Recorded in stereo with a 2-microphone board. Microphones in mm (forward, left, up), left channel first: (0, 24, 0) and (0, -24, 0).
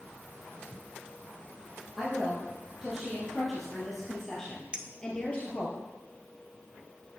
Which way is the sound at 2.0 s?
10° right (ahead or behind).